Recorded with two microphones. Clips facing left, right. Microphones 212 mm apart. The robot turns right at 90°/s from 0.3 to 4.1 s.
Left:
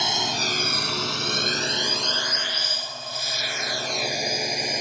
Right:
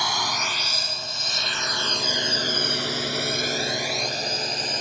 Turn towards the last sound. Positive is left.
turn(degrees=10)  # may be behind; listen again after turning